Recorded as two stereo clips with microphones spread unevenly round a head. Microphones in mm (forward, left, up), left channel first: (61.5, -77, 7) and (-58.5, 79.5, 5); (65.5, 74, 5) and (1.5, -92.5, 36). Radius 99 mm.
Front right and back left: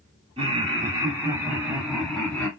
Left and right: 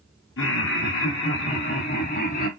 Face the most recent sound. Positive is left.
turn(degrees=35)